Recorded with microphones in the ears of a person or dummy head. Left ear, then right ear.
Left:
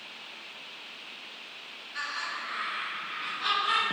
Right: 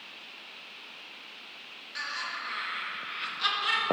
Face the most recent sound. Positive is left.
turn(degrees=-70)  # may be behind; listen again after turning